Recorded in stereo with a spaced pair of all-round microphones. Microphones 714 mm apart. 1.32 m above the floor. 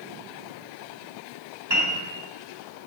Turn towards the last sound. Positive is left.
turn(degrees=-35)  # may be behind; listen again after turning